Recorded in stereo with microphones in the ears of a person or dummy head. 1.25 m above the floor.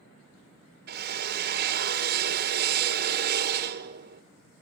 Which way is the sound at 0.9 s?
55° right (ahead or behind).